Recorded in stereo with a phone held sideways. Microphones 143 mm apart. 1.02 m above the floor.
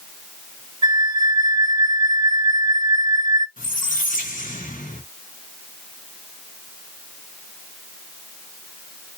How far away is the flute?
About 0.7 m.